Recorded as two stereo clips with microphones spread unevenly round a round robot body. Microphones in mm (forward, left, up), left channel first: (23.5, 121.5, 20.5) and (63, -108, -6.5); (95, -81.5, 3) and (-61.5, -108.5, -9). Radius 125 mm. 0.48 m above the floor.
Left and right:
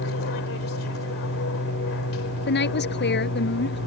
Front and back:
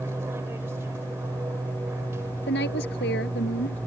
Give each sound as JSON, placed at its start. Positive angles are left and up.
{"t": 0.0, "sound": "an aircraft", "azimuth_deg": 115}
{"t": 2.5, "sound": "a woman speaking", "azimuth_deg": 55}